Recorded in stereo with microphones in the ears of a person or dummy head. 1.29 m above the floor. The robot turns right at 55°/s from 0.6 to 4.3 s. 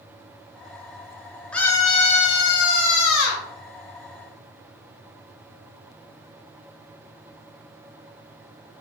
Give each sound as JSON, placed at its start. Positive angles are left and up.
{"t": 1.5, "sound": "a scream", "azimuth_deg": 5, "distance_m": 1.4}